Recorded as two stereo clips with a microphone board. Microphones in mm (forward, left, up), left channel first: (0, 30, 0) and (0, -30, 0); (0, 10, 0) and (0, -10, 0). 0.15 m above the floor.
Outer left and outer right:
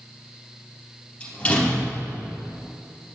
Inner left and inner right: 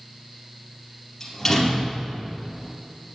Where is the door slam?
20° left (ahead or behind), 3.5 m.